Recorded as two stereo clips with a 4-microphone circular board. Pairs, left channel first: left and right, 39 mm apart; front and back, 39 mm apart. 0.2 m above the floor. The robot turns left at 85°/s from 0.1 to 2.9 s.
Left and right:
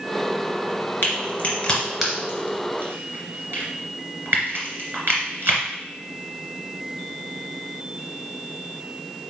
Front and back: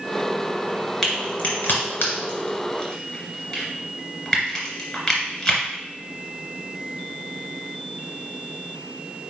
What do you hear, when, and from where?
1.0 s a crack: 85° left, 2.5 m; by 5.6 s 75° right, 2.5 m